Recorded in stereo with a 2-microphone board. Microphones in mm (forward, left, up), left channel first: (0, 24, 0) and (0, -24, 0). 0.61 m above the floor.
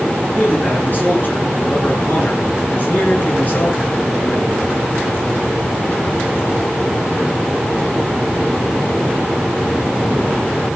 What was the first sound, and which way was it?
A man speaking, 40° left (ahead or behind).